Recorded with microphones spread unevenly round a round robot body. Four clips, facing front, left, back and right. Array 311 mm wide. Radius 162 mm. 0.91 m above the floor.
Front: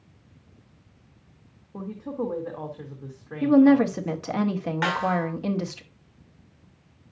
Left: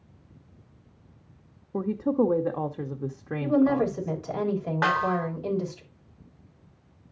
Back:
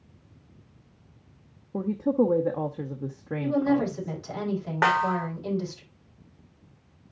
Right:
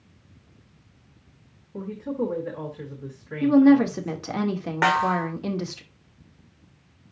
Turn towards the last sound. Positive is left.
turn(degrees=-155)